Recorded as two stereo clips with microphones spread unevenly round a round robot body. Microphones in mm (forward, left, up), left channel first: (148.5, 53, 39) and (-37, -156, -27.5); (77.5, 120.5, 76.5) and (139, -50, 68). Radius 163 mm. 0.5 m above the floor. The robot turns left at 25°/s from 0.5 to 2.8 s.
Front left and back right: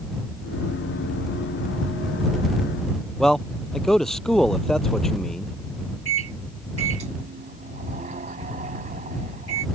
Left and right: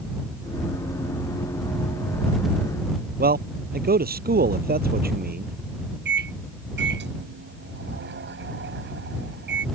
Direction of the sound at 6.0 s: 70° right.